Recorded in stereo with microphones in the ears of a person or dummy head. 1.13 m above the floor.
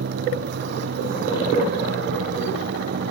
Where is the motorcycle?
55° right (ahead or behind).